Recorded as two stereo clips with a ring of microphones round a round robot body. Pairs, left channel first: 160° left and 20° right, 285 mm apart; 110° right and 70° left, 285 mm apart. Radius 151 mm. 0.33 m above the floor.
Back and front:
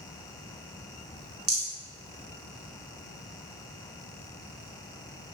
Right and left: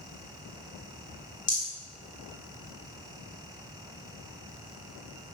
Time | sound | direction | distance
1.5 | a rattle | 55° right | 1.7 m